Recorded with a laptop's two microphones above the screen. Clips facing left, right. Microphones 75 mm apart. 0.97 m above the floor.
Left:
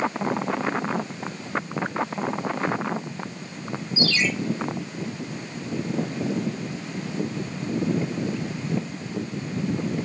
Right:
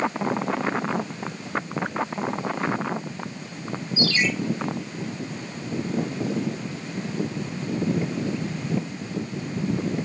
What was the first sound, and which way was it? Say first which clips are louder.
A ringtone: right 1 dB; 50° right (ahead or behind).